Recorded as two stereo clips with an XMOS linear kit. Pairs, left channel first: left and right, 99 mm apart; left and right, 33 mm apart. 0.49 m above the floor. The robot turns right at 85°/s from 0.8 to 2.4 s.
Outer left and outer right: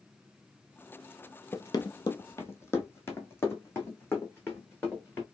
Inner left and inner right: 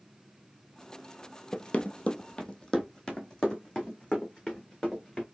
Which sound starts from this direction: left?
Running footsteps, at 1.5 s.